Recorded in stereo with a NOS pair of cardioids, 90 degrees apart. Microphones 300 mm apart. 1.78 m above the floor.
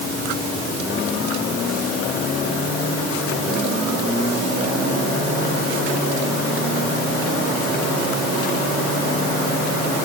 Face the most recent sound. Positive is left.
No sound to turn to.